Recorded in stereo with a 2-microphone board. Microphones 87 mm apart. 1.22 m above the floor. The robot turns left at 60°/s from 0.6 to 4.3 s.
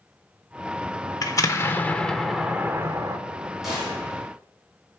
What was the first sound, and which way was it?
An explosion, 65° left.